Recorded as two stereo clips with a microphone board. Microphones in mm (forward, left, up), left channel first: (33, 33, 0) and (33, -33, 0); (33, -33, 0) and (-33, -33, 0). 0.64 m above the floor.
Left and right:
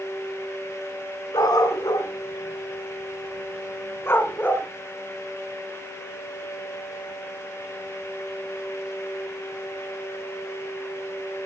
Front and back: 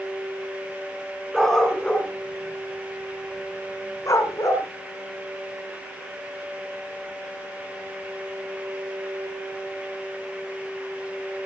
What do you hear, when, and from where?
1.3 s a dog barking: 85° left, 2.5 m; by 4.7 s 25° left, 3 m